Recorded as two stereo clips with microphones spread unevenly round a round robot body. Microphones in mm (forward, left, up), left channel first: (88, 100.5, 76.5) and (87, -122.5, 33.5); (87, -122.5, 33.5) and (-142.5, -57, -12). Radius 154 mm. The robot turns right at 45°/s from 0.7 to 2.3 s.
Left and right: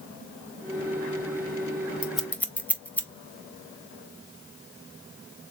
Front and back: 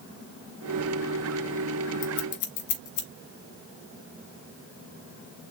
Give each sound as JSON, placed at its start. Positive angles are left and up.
{"t": 2.0, "sound": "scissors", "azimuth_deg": -10, "distance_m": 1.1}